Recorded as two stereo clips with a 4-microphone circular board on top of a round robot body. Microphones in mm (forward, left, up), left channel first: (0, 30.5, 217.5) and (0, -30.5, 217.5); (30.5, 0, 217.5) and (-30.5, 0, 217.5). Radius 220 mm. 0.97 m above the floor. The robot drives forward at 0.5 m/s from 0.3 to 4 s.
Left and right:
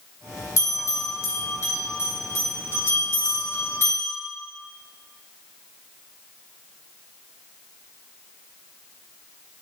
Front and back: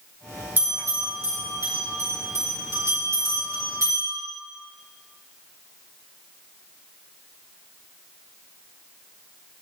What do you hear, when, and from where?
0.6 s a bell: 120° left, 3 m; by 4.2 s 140° left, 4 m